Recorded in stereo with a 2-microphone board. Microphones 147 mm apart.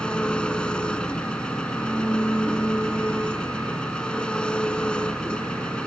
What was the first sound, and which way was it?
An engine running, 5° left (ahead or behind).